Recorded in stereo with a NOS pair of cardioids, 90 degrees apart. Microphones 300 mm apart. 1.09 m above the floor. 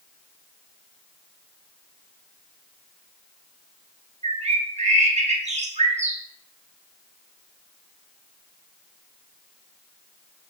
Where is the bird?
20° right, 1.3 m.